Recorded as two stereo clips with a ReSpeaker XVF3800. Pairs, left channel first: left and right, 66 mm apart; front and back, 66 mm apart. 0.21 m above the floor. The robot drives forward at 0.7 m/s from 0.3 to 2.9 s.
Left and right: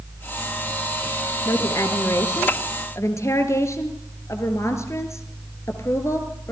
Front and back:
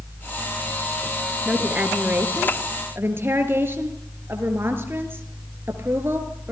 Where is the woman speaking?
110° left, 2.5 m; by 6.5 s 130° left, 3 m.